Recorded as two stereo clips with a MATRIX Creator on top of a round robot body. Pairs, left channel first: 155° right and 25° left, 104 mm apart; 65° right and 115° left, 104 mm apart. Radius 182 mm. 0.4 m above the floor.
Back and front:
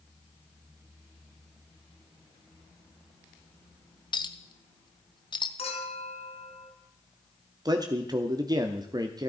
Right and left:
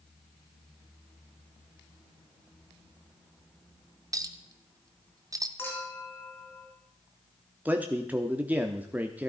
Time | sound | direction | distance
4.1 | a clink | 165° left | 0.9 m
5.6 | a clink | 135° right | 3 m
7.7 | a man speaking | 45° left | 1.2 m